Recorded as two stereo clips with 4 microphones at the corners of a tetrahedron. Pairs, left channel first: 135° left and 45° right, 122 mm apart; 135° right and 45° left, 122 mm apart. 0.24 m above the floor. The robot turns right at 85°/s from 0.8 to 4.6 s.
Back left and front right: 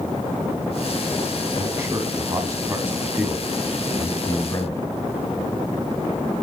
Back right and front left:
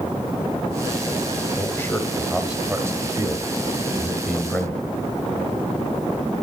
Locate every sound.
1.6 s a man speaking: 110° right, 1.2 m; by 4.8 s 150° left, 1.2 m